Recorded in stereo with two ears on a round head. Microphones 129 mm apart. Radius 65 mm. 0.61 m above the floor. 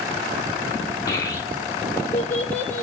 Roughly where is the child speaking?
Left.